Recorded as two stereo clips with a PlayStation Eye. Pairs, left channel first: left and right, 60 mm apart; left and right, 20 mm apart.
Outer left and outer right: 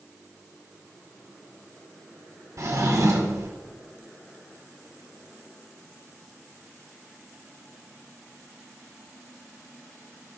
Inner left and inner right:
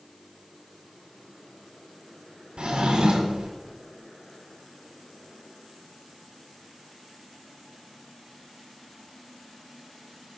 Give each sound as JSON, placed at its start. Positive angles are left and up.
{"t": 2.6, "sound": "a drawer", "side_deg": -60, "distance_m": 1.4}